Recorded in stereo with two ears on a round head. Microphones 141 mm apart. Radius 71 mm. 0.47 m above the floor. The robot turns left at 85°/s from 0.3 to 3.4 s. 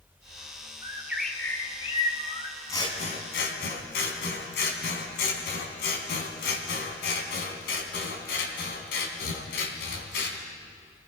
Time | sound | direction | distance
0.8 | a bird | 140° right | 1.7 m
2.7 | scissors | 160° left | 3 m